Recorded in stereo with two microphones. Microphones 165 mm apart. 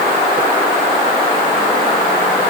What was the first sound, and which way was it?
Only background noise.